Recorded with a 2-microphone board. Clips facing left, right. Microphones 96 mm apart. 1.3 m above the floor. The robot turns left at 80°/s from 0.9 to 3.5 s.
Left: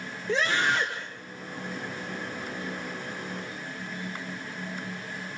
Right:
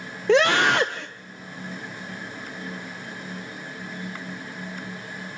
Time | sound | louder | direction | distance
0.3 | a scream | right 8 dB | 70° right (ahead or behind) | 0.9 m